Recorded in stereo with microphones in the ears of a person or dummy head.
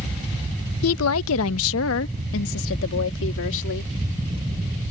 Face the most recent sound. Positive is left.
turn(degrees=65)  # may be behind; listen again after turning